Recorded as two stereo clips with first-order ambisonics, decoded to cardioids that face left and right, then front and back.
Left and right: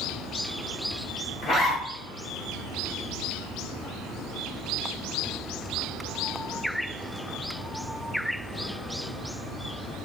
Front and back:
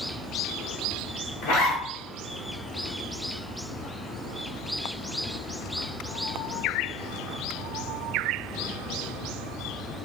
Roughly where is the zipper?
Ahead left.